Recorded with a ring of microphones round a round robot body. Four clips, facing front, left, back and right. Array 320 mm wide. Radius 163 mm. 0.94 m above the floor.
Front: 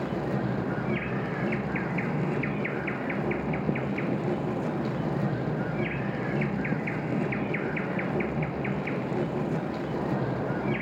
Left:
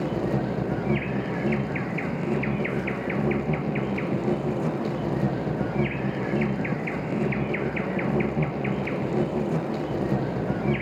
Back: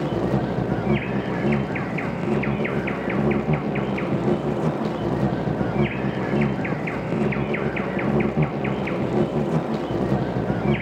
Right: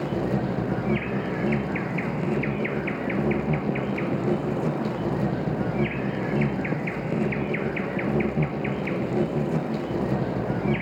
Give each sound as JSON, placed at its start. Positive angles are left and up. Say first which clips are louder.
{"t": 0.0, "sound": "an insect", "louder": "even, back 6 dB", "azimuth_deg": -175, "distance_m": 1.4}